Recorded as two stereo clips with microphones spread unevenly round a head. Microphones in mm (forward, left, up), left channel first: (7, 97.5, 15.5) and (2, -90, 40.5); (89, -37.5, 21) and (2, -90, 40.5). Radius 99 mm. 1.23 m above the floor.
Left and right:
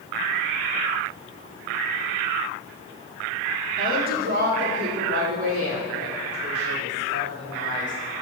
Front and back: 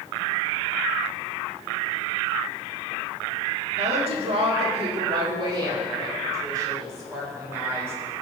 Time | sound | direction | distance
3.8 | a woman speaking | 140° right | 2.5 m